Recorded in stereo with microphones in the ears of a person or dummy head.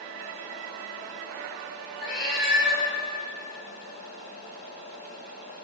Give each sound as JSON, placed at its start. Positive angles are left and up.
{"t": 2.0, "sound": "a cat meowing", "side_deg": 25, "distance_m": 2.5}